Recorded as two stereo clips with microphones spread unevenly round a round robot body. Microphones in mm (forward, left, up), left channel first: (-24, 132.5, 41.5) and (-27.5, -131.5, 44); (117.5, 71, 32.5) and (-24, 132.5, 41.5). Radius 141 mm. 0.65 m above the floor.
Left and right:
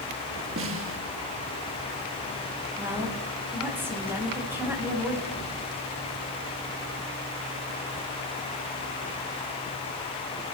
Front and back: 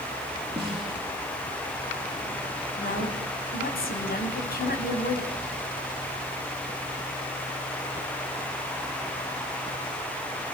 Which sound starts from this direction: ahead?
A woman speaking, at 2.8 s.